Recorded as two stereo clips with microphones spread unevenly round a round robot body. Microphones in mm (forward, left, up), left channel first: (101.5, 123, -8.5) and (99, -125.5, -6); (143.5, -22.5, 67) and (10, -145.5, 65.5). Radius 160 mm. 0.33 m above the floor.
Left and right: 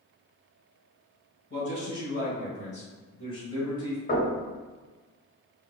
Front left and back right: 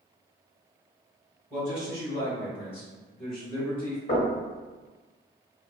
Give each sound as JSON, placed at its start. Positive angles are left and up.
{"t": 1.5, "sound": "a man speaking", "azimuth_deg": 120, "distance_m": 1.7}
{"t": 4.1, "sound": "knocking", "azimuth_deg": 50, "distance_m": 1.8}